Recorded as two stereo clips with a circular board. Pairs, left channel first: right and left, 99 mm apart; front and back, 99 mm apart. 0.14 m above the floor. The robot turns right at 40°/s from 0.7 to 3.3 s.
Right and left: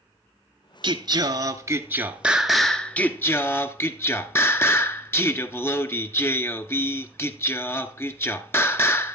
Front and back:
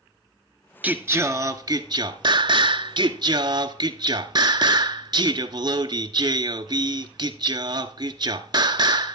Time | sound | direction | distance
0.8 | singing | 110° left | 0.7 m